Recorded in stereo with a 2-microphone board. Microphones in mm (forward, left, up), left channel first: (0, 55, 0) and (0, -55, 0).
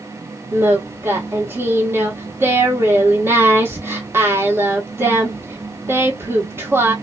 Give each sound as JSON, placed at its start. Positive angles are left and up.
{"t": 0.5, "sound": "singing", "side_deg": -20, "distance_m": 1.1}